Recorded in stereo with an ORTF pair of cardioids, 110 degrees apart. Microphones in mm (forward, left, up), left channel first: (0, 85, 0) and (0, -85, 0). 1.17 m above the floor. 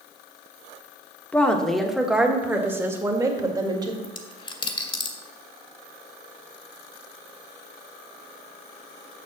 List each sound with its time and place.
1.3 s a woman speaking: 10° left, 1.5 m; by 3.9 s 25° right, 2.5 m
4.0 s a dropped coin: 30° left, 1.6 m